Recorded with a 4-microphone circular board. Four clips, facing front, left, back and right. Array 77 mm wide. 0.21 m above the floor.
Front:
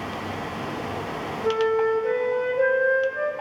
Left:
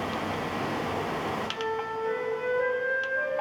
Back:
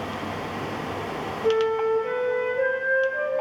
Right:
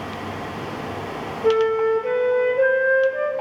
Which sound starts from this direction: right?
A flute, at 1.4 s.